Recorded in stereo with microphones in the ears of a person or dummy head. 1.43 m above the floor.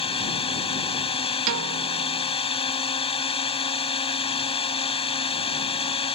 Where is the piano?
70° right (ahead or behind).